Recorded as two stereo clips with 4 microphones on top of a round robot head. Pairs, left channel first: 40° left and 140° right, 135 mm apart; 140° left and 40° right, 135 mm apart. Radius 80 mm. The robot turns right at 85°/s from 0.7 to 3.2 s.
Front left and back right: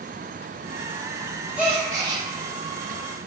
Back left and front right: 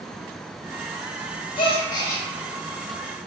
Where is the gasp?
140° left, 0.7 m; by 2.2 s 160° right, 0.7 m.